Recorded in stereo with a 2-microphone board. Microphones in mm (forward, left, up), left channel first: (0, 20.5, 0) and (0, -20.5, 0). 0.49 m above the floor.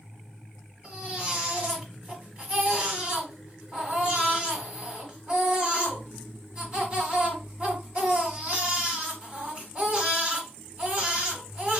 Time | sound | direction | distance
0.8 | a baby crying | 25° right (ahead or behind) | 1.6 m